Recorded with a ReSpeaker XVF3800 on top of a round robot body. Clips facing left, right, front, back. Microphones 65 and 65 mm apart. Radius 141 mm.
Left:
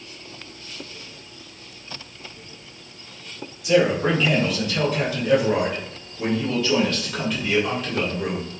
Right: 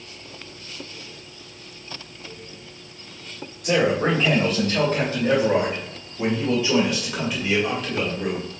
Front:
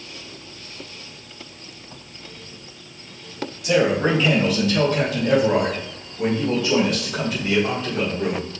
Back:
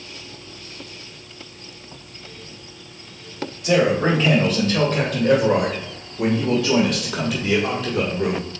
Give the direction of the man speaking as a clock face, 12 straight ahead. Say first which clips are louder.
Left 1 dB, back 1 dB; 4 o'clock.